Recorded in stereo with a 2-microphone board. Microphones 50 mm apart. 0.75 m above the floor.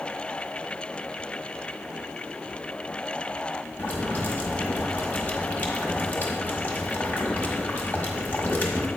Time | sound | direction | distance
3.8 | boiling | 35° left (ahead or behind) | 1.4 m